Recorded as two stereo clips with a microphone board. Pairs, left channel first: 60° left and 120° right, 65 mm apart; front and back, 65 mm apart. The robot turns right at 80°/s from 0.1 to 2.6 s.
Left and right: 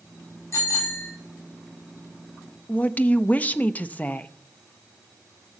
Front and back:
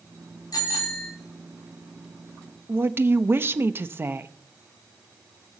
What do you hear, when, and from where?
0.5 s a bicycle bell: 15° left, 5.5 m; by 1.1 s 65° left, 5.5 m
2.7 s a woman speaking: 125° left, 0.7 m